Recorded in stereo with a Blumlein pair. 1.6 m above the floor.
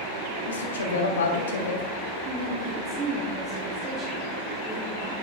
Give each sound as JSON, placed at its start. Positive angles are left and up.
{"t": 0.5, "sound": "a woman speaking", "azimuth_deg": 65, "distance_m": 1.3}
{"t": 2.2, "sound": "a woman speaking", "azimuth_deg": -25, "distance_m": 1.1}